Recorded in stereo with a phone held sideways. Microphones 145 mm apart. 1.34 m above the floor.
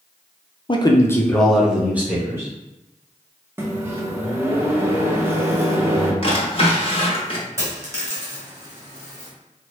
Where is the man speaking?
40° left (ahead or behind), 0.5 m; by 2.5 s 20° right (ahead or behind), 1.1 m.